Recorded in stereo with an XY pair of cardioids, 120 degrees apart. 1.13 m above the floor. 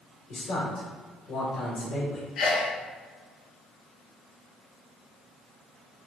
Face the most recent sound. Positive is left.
turn(degrees=70)